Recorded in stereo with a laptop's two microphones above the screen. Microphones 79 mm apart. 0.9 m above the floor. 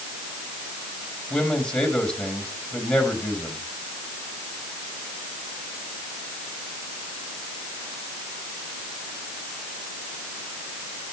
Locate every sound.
1.3 s a man speaking: 5° left (ahead or behind), 4 m